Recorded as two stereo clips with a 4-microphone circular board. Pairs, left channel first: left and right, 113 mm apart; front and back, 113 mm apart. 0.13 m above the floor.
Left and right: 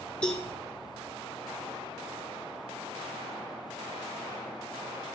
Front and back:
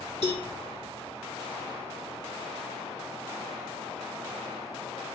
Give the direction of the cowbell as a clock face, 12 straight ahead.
12 o'clock.